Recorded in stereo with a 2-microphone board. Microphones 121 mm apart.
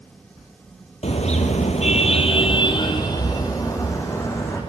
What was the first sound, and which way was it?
A car horn, 65° left (ahead or behind).